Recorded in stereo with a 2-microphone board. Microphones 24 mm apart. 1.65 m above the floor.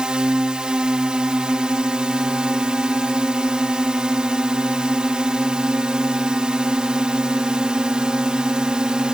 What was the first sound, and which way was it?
A drone, 35° right (ahead or behind).